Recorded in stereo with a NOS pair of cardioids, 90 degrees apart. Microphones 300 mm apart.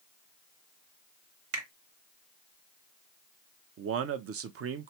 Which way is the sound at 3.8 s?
50° right.